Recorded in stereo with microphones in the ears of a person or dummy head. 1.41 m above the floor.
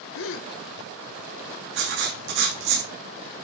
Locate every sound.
0.1 s a gasp: 70° left (ahead or behind), 0.8 m
1.7 s writing: 55° right (ahead or behind), 2.5 m